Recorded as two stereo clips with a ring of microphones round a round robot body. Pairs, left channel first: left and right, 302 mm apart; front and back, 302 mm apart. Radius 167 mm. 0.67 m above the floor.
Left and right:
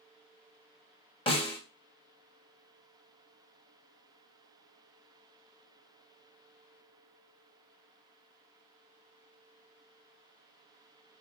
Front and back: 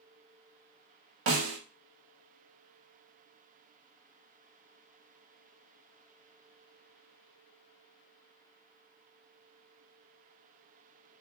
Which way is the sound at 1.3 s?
165° left.